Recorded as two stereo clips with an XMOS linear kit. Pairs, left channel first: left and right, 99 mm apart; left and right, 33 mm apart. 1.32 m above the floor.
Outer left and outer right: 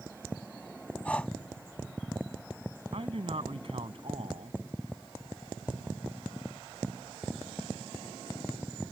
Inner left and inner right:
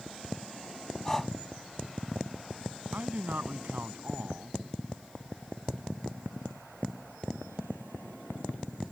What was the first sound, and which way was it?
Breathing, 10° left (ahead or behind).